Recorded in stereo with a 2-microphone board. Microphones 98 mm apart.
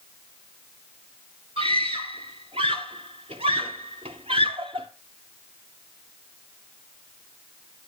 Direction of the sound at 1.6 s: 80° right.